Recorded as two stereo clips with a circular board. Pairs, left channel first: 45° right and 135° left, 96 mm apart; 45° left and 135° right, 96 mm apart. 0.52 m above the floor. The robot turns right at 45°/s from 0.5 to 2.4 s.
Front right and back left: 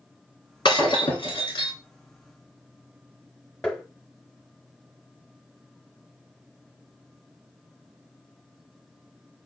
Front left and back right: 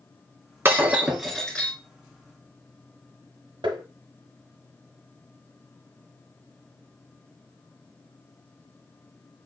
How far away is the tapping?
About 0.9 m.